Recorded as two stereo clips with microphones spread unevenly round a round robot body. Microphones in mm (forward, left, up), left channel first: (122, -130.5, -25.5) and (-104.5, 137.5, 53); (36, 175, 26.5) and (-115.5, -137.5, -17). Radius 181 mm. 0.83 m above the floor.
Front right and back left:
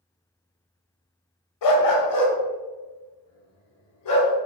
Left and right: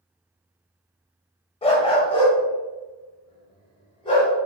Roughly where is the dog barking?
Ahead.